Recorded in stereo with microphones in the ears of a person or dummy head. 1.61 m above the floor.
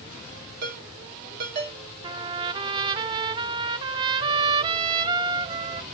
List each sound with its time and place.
0.6 s a ringtone: 60° right (ahead or behind), 2.5 m
2.0 s a trumpet: 30° right (ahead or behind), 0.6 m